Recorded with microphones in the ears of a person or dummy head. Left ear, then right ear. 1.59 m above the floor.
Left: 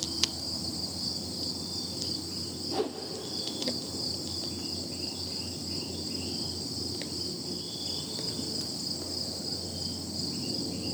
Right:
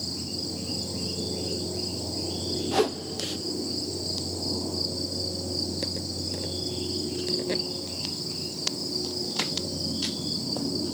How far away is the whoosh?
About 0.8 m.